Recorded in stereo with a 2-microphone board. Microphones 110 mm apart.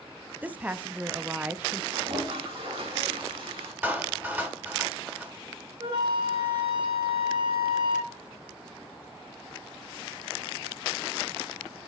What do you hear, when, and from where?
0.4 s a woman speaking: 15° right (ahead or behind), 0.5 m
1.9 s a toilet flushing: 55° right (ahead or behind), 3.5 m
3.8 s a clap: 20° right (ahead or behind), 2.0 m
5.8 s a flute: 50° right (ahead or behind), 3.5 m